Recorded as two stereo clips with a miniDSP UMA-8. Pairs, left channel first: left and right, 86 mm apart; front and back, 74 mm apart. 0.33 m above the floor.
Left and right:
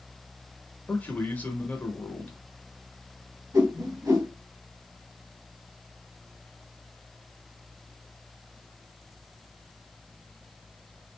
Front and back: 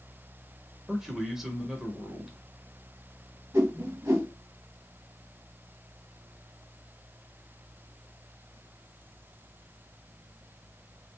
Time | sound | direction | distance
0.9 | a man speaking | 105° left | 0.9 m
3.5 | a whoosh | 135° right | 1.3 m